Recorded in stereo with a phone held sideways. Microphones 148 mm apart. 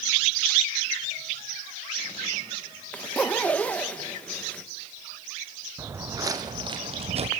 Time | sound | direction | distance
2.9 | a zipper | 10° left (ahead or behind) | 1.5 m
5.8 | footsteps | 15° right (ahead or behind) | 2.5 m